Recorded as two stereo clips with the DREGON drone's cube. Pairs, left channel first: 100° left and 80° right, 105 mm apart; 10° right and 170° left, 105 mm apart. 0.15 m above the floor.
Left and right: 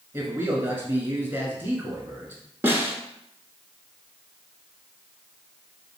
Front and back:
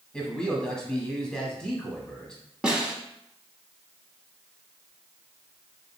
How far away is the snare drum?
About 0.9 m.